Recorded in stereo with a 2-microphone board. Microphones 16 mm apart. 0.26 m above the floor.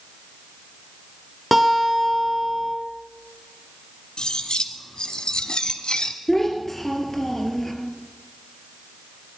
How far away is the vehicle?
I don't hear a vehicle.